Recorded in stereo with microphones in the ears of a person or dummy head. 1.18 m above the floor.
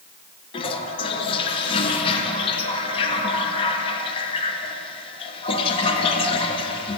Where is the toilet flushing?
30° left (ahead or behind), 0.9 m.